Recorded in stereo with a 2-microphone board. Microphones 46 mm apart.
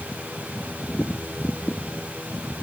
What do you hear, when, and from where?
Only background noise.